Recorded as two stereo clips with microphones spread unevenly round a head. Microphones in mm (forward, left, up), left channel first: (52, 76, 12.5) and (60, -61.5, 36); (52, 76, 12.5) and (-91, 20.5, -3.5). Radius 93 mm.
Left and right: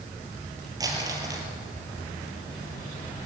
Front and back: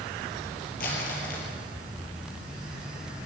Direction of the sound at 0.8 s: 25° right.